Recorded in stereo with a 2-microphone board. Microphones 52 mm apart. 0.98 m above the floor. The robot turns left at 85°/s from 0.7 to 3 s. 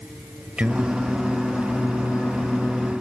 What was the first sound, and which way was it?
Singing, 160° right.